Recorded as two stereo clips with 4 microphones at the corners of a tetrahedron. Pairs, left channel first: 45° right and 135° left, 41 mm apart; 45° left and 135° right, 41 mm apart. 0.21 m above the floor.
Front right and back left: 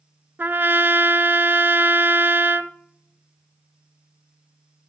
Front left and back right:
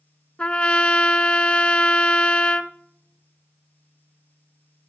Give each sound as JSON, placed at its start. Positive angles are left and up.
{"t": 0.4, "sound": "a trumpet", "azimuth_deg": 105, "distance_m": 0.6}